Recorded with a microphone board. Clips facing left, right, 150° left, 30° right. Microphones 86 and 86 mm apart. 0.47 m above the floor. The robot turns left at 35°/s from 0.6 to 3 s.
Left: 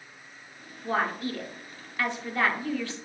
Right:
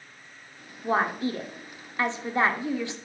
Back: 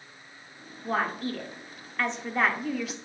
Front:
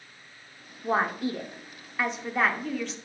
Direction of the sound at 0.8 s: 60° right.